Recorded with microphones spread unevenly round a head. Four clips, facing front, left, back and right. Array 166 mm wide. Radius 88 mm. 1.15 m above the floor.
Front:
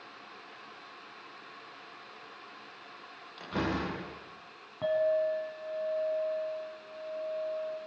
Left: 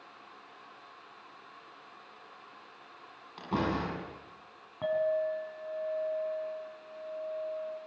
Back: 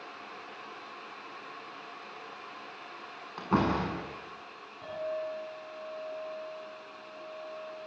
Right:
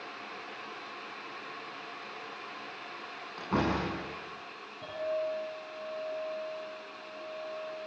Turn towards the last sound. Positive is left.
turn(degrees=40)